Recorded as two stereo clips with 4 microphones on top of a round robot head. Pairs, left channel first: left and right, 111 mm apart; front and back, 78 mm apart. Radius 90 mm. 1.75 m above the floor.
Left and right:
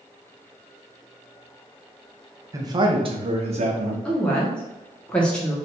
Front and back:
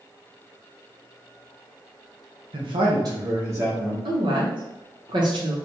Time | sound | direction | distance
2.5 | a man speaking | 150° right | 0.9 m
4.0 | a woman speaking | 170° left | 1.3 m